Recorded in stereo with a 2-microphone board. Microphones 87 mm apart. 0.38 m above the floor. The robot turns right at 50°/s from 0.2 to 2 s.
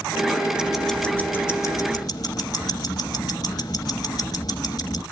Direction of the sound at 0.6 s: 10° right.